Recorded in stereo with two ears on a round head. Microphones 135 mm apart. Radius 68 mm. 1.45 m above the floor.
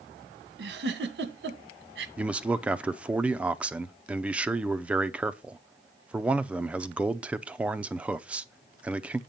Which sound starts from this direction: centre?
A man speaking, at 2.2 s.